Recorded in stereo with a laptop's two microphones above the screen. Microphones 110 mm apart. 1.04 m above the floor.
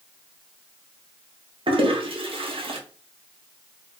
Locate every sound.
1.7 s a toilet flushing: 55° right (ahead or behind), 0.6 m